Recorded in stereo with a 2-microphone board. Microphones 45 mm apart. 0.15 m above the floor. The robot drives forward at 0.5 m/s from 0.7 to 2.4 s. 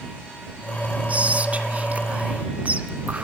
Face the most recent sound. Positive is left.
turn(degrees=-30)  # may be behind; listen again after turning